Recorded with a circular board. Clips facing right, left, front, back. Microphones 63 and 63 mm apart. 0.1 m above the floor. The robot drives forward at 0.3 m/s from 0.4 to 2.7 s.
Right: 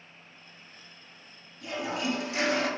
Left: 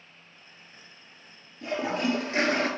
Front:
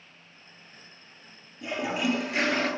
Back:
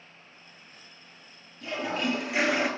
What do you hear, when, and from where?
1.6 s a toilet flushing: 65° left, 0.6 m; by 2.7 s 105° left, 0.6 m